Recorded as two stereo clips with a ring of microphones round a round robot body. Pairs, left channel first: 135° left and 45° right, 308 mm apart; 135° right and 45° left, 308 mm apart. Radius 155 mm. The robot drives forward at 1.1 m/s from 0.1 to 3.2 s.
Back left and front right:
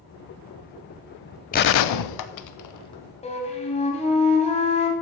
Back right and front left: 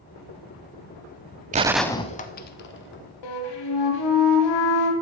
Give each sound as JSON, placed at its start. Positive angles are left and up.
{"t": 1.5, "sound": "a gunshot", "azimuth_deg": 90, "distance_m": 0.5}
{"t": 3.2, "sound": "a flute", "azimuth_deg": -155, "distance_m": 2.5}